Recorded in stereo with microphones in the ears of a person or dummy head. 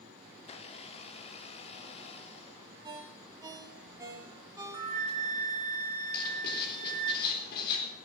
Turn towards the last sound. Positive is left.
turn(degrees=50)  # may be behind; listen again after turning